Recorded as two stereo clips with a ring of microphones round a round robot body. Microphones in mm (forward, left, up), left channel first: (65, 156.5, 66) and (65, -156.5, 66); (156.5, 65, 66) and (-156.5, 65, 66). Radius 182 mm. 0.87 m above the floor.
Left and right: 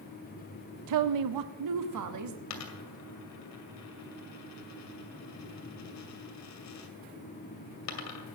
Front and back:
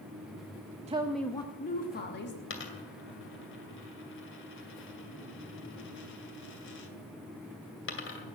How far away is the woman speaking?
About 0.6 m.